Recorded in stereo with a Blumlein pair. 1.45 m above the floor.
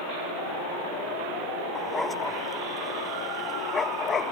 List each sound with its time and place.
1.8 s a dog barking: 10° left; by 4.3 s 20° left